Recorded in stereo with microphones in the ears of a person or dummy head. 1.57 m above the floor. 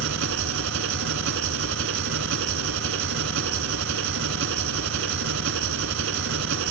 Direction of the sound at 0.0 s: 65° right (ahead or behind).